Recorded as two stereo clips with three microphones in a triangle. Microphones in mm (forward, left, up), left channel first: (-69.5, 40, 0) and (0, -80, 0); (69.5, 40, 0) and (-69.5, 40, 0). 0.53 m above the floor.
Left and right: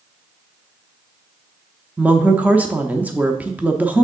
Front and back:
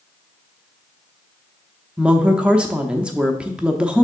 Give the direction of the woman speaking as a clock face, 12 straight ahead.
4 o'clock.